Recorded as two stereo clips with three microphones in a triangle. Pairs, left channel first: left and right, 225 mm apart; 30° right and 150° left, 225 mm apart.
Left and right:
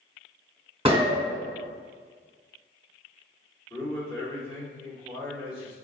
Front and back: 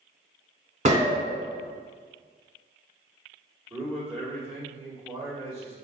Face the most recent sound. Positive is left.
turn(degrees=135)